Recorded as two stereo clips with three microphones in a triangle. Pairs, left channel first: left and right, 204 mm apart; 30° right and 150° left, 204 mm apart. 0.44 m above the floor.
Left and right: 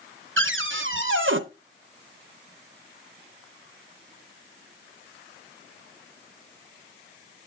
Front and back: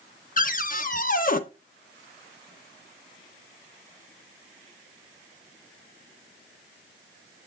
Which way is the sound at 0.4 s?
80° right.